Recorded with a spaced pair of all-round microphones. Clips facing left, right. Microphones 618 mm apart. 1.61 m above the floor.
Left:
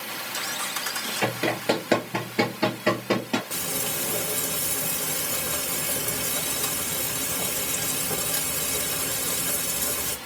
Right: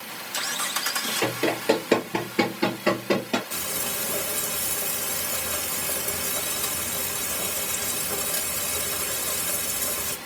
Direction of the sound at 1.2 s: 20° left (ahead or behind).